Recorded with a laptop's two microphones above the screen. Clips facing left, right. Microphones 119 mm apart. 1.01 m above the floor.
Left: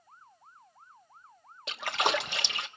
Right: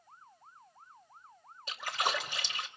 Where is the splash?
70° left (ahead or behind), 1.0 m.